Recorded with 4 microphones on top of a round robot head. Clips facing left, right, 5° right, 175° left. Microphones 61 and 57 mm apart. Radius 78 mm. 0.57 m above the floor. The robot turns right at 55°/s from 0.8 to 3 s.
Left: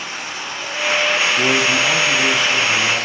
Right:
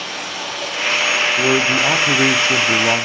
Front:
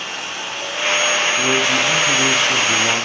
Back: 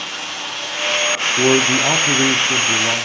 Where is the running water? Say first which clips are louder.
Right 1 dB, even; 75° right, 3 m; by 3.1 s 45° left, 3 m.